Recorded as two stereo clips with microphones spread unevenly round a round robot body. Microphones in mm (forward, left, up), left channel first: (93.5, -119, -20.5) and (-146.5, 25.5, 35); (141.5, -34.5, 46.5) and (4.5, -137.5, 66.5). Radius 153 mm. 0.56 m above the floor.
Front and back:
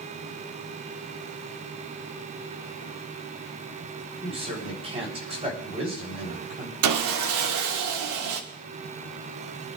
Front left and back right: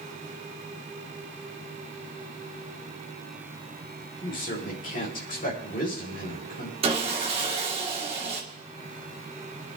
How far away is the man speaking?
About 3.5 m.